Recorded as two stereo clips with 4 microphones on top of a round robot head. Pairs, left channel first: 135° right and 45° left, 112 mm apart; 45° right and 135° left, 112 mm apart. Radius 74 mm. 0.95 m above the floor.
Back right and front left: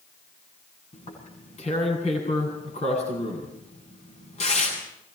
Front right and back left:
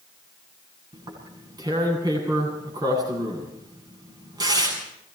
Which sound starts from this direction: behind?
Tearing paper, at 0.9 s.